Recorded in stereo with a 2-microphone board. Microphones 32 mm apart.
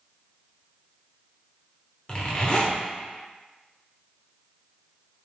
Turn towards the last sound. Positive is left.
turn(degrees=35)  # may be behind; listen again after turning